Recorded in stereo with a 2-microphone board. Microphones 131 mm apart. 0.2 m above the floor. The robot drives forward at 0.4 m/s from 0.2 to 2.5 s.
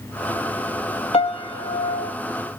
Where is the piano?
45° left (ahead or behind), 0.6 m; by 2.1 s 30° left (ahead or behind), 0.9 m.